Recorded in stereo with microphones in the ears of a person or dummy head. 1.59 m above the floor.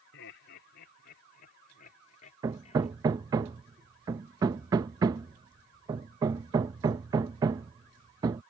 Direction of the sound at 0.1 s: 60° left (ahead or behind).